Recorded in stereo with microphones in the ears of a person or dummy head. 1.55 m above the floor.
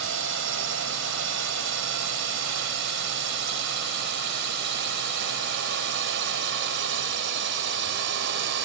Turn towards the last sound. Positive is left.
turn(degrees=-55)  # may be behind; listen again after turning